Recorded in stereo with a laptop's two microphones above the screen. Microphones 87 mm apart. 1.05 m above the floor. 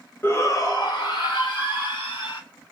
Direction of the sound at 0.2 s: 25° left (ahead or behind).